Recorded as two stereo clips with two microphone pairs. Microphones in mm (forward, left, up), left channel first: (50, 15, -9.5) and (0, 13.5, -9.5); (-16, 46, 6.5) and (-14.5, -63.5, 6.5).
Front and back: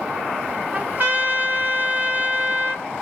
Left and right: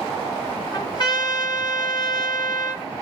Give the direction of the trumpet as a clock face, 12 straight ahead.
7 o'clock.